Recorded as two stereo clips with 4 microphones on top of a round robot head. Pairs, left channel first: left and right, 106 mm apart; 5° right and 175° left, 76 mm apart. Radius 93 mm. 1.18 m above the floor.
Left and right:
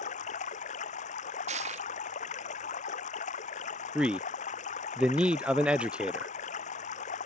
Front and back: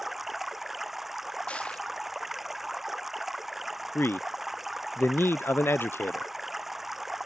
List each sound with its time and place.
0.0 s running water: 85° left
1.5 s crushing: 85° right
4.0 s a man speaking: 20° right